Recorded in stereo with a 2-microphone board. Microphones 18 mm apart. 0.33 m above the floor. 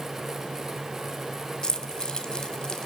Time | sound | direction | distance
1.6 | keys jangling | 35° left (ahead or behind) | 1.5 m